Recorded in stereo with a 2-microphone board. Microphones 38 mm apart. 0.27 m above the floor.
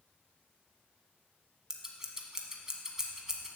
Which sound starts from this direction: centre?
Scissors, at 1.7 s.